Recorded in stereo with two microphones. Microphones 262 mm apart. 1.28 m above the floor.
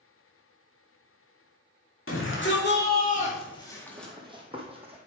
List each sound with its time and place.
2.1 s a shout: 55° left (ahead or behind), 2.5 m; by 4.1 s centre (ahead or behind), 1.9 m
4.0 s running footsteps: 15° right (ahead or behind), 1.8 m; by 5.0 s 20° right (ahead or behind), 2.5 m